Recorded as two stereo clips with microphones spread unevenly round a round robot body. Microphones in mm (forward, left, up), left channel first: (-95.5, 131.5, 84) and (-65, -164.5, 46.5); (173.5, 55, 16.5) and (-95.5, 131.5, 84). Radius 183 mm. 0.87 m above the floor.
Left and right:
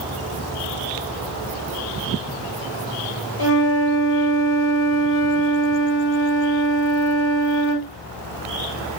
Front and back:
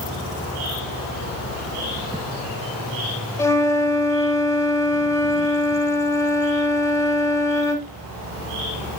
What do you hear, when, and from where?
3.4 s a flute: 65° left, 3 m